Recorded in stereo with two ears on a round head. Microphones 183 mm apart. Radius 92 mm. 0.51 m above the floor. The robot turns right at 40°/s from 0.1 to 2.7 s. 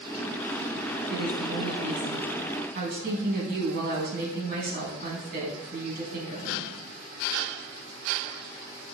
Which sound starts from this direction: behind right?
A woman speaking, at 1.1 s.